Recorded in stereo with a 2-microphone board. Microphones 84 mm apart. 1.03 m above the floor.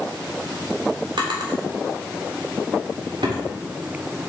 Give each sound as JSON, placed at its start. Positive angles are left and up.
{"t": 1.2, "sound": "a drawer", "side_deg": -70, "distance_m": 1.6}